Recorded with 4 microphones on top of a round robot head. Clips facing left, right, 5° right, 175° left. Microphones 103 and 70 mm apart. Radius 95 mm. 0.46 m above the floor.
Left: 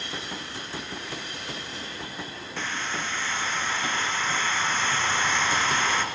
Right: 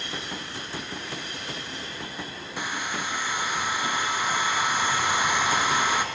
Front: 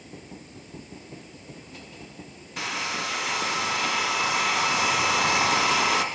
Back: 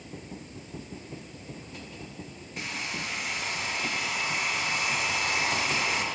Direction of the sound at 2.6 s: 10° right.